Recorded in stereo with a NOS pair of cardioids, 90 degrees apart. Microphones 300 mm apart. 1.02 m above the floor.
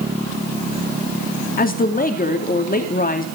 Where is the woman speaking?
30° left, 2.5 m.